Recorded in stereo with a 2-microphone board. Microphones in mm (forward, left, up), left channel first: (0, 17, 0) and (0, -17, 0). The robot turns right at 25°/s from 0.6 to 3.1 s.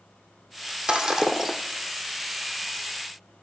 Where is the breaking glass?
25° right (ahead or behind), 1.3 m; by 1.6 s 5° right (ahead or behind), 1.3 m.